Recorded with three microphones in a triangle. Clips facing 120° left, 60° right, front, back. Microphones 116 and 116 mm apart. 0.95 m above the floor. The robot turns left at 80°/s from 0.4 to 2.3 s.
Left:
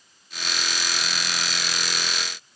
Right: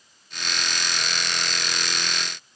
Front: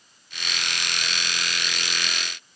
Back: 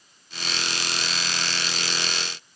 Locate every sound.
Only background noise.